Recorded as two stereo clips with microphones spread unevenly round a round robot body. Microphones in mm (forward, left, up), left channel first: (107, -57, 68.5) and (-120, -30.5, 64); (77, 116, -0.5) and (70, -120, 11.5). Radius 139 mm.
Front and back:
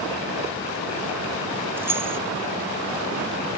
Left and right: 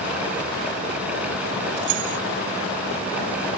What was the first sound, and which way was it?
Keys jangling, 105° right.